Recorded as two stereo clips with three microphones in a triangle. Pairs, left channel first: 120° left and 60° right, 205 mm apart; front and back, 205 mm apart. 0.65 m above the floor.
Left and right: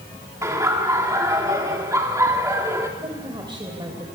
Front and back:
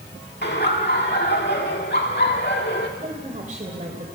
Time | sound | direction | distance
0.4 | laughter | 10° left | 1.8 m
3.0 | a woman speaking | 125° right | 2.5 m